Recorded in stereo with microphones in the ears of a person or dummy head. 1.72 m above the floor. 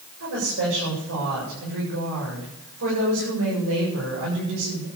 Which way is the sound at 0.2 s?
75° right (ahead or behind).